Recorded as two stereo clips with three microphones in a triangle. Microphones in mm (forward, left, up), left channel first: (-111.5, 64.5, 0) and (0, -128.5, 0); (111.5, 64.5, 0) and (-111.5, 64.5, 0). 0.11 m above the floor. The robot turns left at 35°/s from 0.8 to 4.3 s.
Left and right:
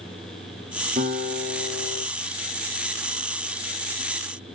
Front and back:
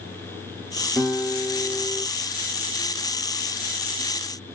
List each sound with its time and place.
1.0 s a guitar: 85° right, 2.5 m; by 2.0 s 125° right, 2.5 m